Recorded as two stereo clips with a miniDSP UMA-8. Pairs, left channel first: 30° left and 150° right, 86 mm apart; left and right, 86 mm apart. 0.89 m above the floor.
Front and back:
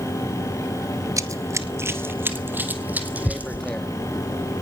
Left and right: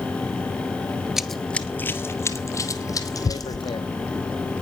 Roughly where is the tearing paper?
Left.